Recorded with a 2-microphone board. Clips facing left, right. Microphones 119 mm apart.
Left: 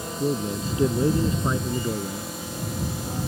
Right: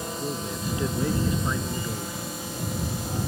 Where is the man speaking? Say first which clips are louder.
Left 9 dB; 25° left (ahead or behind).